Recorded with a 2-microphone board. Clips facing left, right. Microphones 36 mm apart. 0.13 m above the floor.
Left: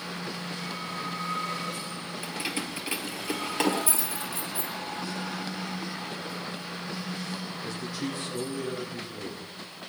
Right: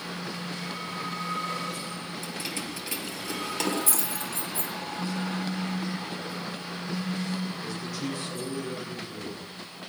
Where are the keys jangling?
25° left (ahead or behind), 2.0 m.